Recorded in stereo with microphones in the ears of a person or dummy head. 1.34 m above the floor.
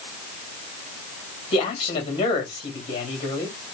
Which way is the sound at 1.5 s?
35° left (ahead or behind).